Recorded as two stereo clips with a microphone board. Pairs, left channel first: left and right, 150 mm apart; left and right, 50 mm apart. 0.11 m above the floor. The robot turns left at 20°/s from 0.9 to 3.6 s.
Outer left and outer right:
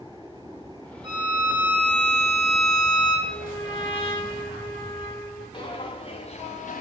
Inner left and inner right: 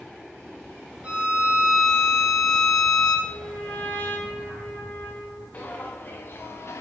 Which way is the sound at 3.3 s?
45° left (ahead or behind).